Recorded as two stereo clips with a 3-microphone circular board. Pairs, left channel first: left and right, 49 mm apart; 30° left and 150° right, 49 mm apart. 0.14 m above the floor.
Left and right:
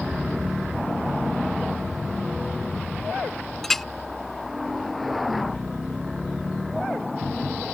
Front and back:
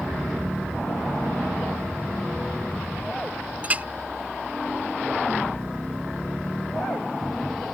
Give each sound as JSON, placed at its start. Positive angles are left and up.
{"t": 3.6, "sound": "a clink", "azimuth_deg": 170}